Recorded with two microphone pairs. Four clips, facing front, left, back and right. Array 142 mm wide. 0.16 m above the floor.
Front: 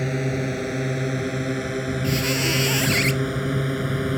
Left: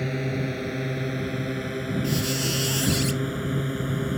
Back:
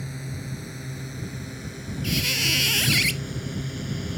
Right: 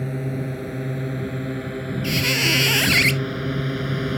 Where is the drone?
Straight ahead; by 4.2 s 30° right.